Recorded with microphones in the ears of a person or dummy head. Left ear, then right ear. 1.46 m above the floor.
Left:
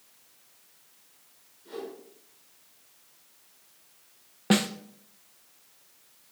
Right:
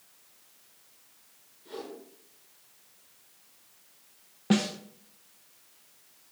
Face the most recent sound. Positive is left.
turn(degrees=25)  # may be behind; listen again after turning